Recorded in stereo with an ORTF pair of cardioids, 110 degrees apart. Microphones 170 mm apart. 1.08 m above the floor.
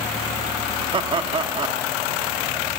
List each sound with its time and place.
0.9 s laughter: 30° right, 1.8 m